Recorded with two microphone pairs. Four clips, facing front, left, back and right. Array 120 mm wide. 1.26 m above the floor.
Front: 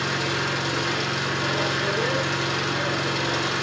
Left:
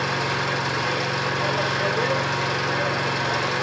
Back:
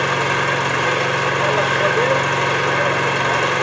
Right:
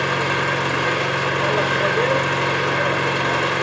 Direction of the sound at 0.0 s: 160° right.